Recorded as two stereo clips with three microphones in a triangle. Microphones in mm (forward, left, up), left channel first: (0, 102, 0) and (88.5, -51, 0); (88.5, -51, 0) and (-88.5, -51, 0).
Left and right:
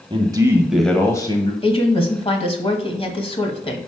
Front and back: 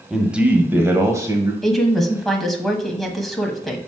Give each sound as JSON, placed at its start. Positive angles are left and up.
{"t": 0.1, "sound": "a man speaking", "azimuth_deg": -95, "distance_m": 1.1}
{"t": 1.6, "sound": "a woman speaking", "azimuth_deg": 90, "distance_m": 1.2}